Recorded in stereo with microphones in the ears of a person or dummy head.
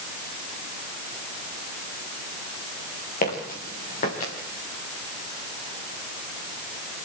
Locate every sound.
3.2 s footsteps: 55° left (ahead or behind), 6.5 m